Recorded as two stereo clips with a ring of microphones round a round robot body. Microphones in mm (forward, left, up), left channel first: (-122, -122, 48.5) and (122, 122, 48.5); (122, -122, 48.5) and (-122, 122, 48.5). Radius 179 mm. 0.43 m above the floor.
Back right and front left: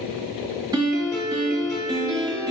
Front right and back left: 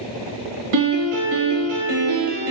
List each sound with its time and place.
0.7 s a piano: 125° left, 1.2 m